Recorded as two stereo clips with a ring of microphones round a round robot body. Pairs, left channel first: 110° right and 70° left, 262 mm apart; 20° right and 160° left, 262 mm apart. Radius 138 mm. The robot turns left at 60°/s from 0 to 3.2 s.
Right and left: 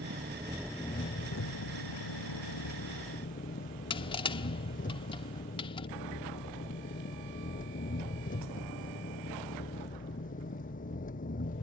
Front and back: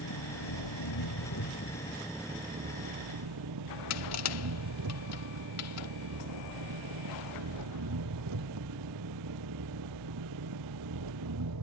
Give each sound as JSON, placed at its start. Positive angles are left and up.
{"t": 0.0, "sound": "an engine running", "azimuth_deg": 15}
{"t": 3.9, "sound": "crushing", "azimuth_deg": -40}